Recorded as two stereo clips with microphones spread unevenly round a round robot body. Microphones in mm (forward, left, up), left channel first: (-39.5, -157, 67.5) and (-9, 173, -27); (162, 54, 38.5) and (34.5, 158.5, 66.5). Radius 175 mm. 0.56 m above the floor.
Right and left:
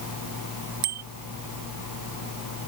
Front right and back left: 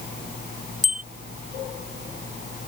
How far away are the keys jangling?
I don't hear keys jangling.